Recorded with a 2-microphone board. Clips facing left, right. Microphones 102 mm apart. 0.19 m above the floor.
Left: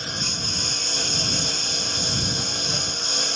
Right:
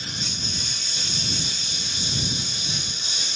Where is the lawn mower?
50° left (ahead or behind); by 3.4 s 55° left (ahead or behind).